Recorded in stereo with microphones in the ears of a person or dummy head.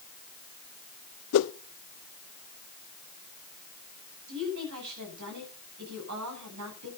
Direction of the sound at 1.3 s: 75° left (ahead or behind).